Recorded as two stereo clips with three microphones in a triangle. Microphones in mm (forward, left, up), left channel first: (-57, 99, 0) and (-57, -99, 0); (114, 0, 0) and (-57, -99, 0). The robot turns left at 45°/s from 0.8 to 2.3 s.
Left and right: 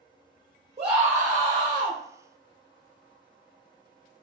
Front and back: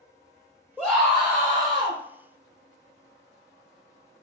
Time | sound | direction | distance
0.8 | a scream | 50° right | 0.6 m